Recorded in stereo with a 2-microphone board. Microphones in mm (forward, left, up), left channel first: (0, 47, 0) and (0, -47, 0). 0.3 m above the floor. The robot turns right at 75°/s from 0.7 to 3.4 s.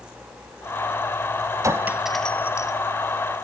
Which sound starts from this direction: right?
A clink, at 1.6 s.